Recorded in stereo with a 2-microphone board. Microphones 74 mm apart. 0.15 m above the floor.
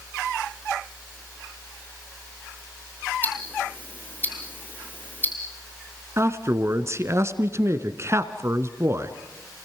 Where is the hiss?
I don't hear a hiss.